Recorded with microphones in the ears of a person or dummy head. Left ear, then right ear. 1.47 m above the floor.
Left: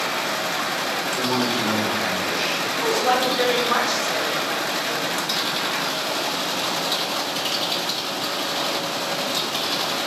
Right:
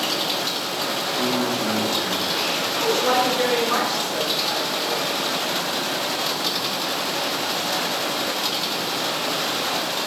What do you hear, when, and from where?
1.2 s a man speaking: 50° left (ahead or behind), 1.2 m; by 3.2 s 15° right (ahead or behind), 1.7 m
2.8 s a woman speaking: 5° left (ahead or behind), 1.0 m